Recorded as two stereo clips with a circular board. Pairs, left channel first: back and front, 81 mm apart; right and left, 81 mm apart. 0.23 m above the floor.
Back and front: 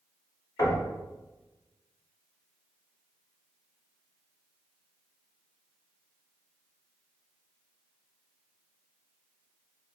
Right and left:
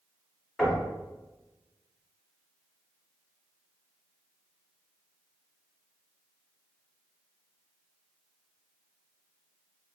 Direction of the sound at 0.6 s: 175° right.